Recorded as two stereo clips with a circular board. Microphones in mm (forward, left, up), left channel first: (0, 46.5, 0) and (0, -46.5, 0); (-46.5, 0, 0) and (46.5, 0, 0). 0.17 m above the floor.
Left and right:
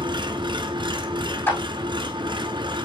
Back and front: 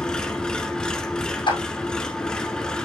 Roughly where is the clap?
Behind left.